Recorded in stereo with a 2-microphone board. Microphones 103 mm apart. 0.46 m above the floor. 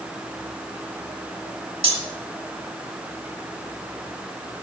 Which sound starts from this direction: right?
Cutlery clinking, at 1.8 s.